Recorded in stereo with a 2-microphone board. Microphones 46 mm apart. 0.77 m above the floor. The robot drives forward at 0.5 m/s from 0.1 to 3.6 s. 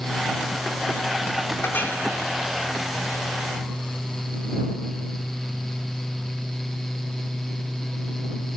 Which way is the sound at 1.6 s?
50° left (ahead or behind).